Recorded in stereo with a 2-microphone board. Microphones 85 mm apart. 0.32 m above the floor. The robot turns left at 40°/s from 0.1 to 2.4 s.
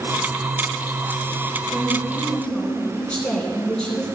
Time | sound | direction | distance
1.7 | a woman speaking | 15° right (ahead or behind) | 3.5 m